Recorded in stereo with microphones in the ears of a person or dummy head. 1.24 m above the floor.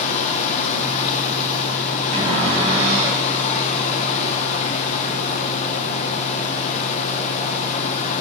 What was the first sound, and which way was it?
Running water, 35° left (ahead or behind).